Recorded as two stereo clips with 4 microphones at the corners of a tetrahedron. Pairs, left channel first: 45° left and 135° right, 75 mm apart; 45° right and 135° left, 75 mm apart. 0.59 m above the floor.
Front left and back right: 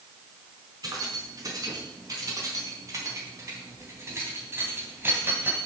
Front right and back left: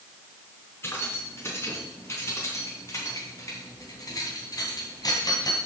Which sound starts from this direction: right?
Keys jangling, at 0.8 s.